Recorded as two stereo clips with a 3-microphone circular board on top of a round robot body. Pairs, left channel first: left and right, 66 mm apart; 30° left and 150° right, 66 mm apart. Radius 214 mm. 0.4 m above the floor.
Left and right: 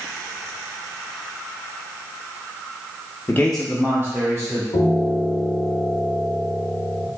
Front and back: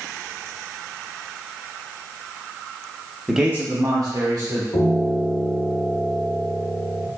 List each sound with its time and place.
3.3 s a man speaking: 125° left, 0.9 m; by 4.6 s 130° right, 1.8 m
4.7 s a piano: 70° left, 0.6 m